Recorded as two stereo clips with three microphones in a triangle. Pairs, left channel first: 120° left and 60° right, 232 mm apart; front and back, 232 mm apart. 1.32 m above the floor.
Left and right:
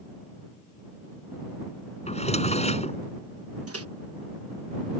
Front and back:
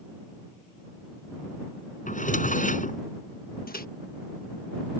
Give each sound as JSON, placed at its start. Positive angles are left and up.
{"t": 2.1, "sound": "a drawer", "azimuth_deg": 55}
{"t": 3.7, "sound": "a microwave", "azimuth_deg": -50}